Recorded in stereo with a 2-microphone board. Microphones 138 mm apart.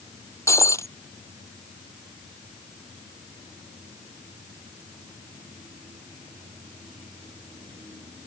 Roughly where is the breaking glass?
Left.